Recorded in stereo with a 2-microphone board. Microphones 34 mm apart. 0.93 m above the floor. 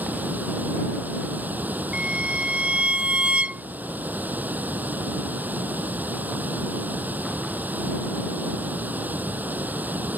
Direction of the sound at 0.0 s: 60° right (ahead or behind).